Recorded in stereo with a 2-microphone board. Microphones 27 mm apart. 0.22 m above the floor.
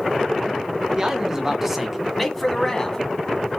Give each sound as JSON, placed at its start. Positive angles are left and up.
{"t": 0.9, "sound": "a man speaking", "side_deg": -25, "distance_m": 2.0}